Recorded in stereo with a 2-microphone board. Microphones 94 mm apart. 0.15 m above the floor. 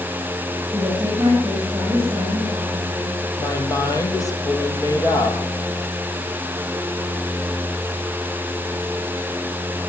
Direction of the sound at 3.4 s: 40° left (ahead or behind).